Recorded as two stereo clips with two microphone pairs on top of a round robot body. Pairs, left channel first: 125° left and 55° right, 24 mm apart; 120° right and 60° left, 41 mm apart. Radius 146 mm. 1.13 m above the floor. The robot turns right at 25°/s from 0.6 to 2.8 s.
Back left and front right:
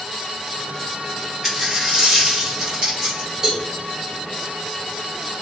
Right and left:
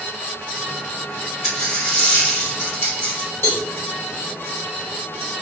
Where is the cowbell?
115° right, 1.5 m.